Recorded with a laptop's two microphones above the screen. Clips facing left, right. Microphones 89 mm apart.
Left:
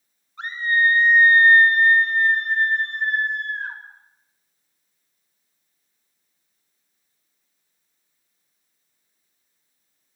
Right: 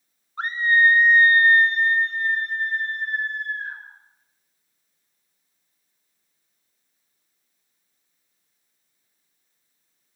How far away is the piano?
I don't hear a piano.